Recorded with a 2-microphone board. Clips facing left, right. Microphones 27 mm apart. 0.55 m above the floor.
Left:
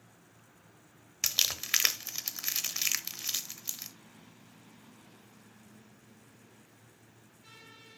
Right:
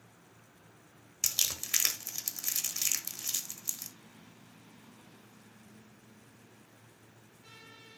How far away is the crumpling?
About 1.0 m.